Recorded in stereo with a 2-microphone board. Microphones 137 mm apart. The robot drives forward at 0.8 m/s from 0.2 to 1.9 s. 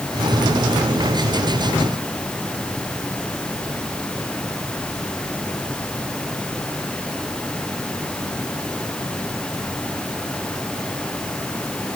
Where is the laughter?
No laughter in this recording.